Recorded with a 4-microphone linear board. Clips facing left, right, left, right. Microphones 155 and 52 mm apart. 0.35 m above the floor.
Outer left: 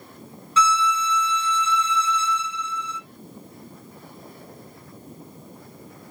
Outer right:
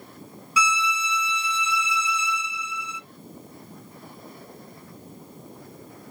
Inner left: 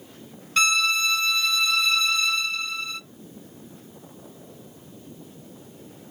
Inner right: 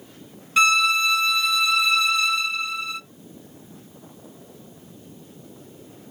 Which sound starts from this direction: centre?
A violin, at 0.6 s.